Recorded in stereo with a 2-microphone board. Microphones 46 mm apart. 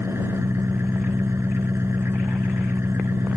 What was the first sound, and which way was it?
An engine running, 65° right (ahead or behind).